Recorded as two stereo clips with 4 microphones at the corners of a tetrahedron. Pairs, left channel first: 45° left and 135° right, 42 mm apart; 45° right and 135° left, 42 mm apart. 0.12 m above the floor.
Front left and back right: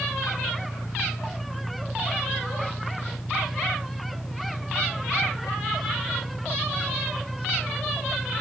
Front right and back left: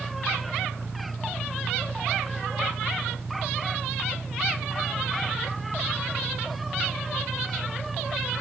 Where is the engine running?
10° left.